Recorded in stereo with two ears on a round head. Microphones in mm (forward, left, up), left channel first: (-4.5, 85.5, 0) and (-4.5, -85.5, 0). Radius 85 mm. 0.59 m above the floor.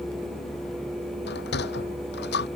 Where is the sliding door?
60° left (ahead or behind).